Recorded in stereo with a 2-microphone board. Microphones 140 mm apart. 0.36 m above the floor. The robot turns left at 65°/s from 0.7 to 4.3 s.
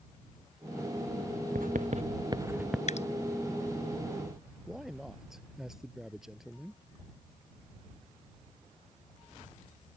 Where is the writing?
80° right; by 2.8 s centre (ahead or behind).